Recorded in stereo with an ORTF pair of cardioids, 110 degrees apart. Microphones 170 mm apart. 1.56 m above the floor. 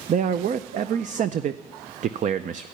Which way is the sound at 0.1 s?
45° right.